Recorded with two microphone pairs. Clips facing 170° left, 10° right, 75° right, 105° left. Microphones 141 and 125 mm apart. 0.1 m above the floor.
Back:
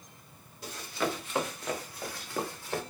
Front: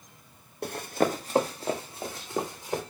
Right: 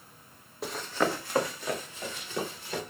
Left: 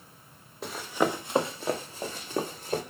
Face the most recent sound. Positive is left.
turn(degrees=60)